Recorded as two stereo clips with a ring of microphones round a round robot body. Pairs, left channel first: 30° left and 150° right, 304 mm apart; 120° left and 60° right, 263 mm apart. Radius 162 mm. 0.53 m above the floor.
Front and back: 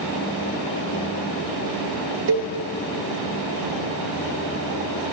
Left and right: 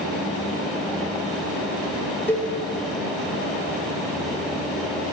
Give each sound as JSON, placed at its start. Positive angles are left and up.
{"t": 2.3, "sound": "a cowbell", "azimuth_deg": -160, "distance_m": 1.6}